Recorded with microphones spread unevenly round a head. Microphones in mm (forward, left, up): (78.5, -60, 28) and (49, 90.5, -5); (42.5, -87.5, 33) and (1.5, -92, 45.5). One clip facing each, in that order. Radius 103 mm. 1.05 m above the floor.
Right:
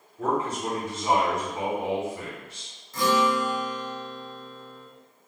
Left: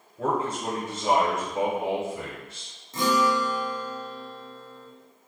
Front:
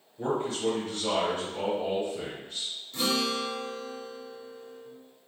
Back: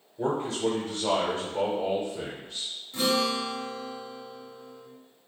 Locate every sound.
0.2 s a man speaking: 150° left, 0.8 m
2.9 s a guitar: 100° left, 0.6 m